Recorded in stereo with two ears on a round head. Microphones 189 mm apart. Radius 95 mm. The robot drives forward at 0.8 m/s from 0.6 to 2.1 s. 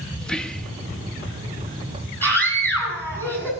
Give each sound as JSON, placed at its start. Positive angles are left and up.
{"t": 0.2, "sound": "whispering", "side_deg": 5, "distance_m": 0.6}
{"t": 2.2, "sound": "a scream", "side_deg": 10, "distance_m": 6.5}